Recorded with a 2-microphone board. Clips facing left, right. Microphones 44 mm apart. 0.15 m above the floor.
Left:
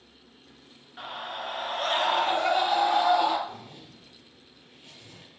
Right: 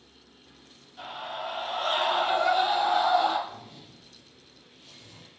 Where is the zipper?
55° left (ahead or behind), 3.5 m.